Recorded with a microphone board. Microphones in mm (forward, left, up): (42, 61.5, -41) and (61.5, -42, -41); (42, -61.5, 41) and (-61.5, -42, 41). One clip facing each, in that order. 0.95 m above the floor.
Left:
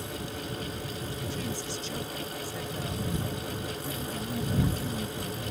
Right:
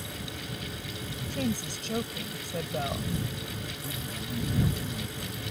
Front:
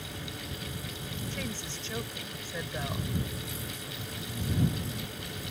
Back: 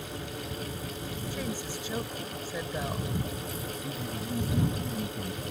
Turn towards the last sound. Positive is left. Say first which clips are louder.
# left 3 dB, back 6 dB
turn(degrees=170)